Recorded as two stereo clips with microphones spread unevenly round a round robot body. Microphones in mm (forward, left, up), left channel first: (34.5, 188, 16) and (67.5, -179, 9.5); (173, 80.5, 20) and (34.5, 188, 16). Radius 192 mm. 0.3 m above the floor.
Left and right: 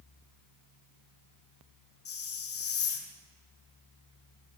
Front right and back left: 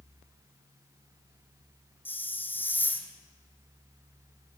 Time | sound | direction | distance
2.0 | a hiss | 40° left | 3.5 m